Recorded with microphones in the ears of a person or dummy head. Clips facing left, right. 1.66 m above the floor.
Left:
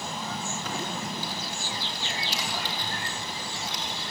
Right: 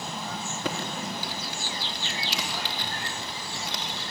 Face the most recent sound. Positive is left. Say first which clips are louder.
# right 4 dB
turn(degrees=-60)  # may be behind; listen again after turning